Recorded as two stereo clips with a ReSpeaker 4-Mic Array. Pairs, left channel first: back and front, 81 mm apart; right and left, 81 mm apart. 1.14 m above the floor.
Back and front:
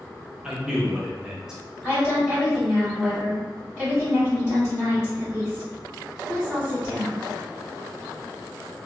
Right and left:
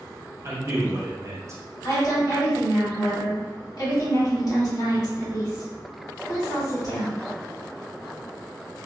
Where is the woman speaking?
125° right, 1.7 m.